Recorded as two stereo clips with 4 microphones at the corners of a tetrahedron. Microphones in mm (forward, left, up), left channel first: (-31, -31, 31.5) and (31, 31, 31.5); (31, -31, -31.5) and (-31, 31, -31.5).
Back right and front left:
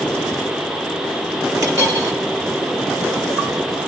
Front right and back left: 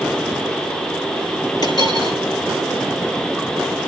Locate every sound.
1.6 s a dropped coin: 5° right, 8.5 m